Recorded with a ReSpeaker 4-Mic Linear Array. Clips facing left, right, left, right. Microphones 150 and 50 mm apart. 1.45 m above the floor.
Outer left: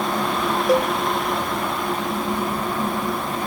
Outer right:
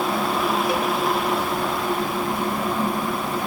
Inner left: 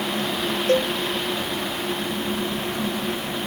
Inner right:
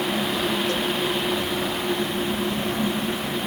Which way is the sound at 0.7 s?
45° left (ahead or behind).